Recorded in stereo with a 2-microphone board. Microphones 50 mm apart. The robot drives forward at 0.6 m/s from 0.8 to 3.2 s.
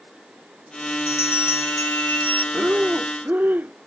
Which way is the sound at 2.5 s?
35° right (ahead or behind).